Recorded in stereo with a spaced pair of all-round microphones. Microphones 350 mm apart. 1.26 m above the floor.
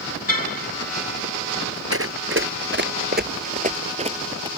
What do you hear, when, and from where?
0.3 s a car horn: 75° left (ahead or behind)
1.9 s running footsteps: 40° right (ahead or behind); by 4.5 s 15° right (ahead or behind)